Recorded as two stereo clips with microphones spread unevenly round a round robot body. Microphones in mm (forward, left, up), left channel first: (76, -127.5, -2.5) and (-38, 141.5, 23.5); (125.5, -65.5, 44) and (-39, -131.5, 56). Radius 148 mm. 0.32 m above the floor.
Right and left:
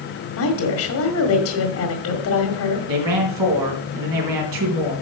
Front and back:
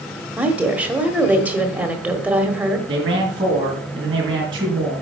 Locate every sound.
0.4 s a woman speaking: 75° right, 1.6 m
2.9 s a man speaking: 130° left, 3.5 m